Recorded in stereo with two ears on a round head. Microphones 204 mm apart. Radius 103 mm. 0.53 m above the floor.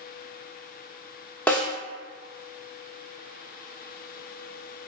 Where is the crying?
I don't hear crying.